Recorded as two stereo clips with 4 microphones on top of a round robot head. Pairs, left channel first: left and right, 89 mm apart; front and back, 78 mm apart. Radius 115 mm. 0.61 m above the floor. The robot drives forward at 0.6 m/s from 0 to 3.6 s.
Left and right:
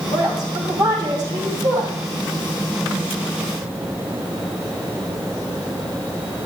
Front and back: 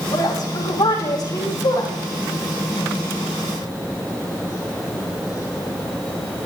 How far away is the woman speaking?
About 5 m.